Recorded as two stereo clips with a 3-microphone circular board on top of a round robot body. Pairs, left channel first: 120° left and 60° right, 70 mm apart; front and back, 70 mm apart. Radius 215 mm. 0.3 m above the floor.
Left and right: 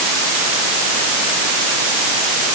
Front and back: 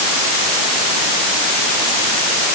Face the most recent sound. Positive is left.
No sound to turn to.